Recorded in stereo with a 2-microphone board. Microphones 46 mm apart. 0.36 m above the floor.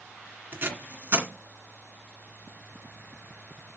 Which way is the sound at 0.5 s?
45° right (ahead or behind).